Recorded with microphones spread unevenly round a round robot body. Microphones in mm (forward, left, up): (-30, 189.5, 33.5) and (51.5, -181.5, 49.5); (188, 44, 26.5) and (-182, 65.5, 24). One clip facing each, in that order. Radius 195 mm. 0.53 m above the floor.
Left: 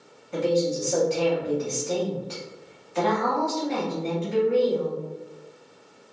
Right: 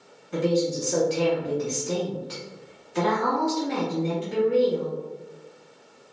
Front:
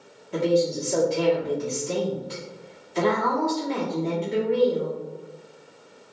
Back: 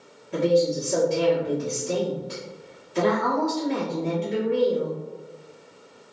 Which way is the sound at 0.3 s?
125° right.